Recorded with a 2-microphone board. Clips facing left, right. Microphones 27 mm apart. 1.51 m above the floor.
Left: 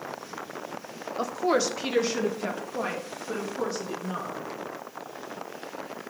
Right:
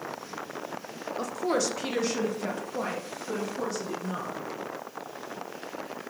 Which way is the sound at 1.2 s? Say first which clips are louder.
Left 3 dB; 20° left (ahead or behind).